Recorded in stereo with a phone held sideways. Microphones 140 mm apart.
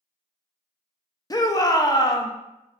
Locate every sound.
1.3 s a shout: 25° left (ahead or behind), 0.5 m